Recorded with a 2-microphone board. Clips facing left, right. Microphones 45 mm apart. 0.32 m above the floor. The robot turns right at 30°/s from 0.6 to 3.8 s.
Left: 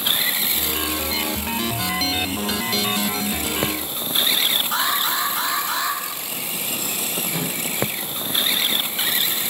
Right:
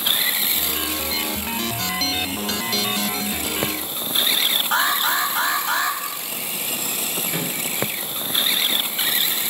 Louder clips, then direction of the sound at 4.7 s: Right 2 dB; 50° right (ahead or behind).